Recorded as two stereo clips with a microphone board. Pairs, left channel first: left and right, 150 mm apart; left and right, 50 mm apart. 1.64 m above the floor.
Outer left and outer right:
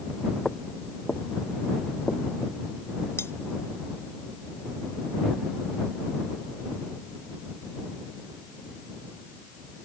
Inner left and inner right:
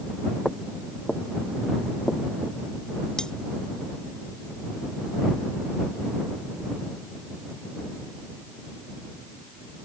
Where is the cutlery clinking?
15° left (ahead or behind).